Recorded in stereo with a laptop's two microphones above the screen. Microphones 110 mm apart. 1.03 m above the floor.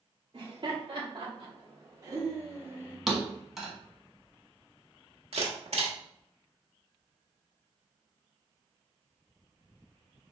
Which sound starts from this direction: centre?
A thud, at 3.1 s.